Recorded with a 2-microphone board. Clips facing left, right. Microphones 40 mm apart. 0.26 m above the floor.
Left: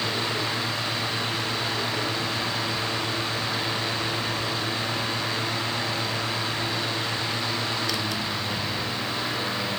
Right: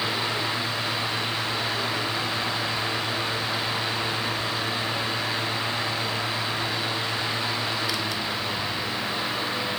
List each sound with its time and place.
Only background noise.